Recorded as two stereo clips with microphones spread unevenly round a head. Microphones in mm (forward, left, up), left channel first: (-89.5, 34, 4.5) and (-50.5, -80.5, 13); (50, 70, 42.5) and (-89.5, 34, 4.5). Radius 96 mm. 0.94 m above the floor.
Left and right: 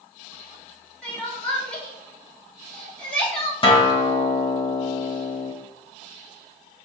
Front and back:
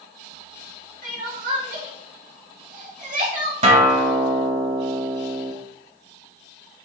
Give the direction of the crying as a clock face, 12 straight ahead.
6 o'clock.